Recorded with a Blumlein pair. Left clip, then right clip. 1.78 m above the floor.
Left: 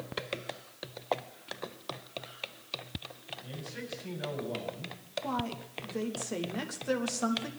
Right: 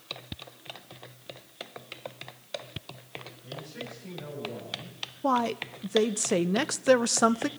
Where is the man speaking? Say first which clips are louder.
Right 3 dB; 10° left, 6 m.